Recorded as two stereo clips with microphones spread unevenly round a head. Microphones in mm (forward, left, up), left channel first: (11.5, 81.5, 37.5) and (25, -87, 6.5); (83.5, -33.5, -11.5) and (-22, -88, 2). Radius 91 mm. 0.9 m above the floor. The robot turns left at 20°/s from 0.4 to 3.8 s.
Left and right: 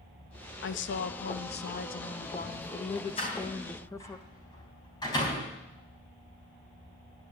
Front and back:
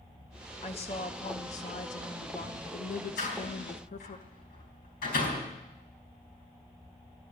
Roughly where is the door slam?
Ahead left.